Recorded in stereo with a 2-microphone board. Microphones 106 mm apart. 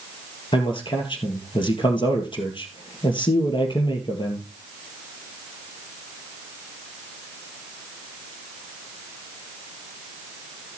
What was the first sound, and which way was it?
A man speaking, 50° left (ahead or behind).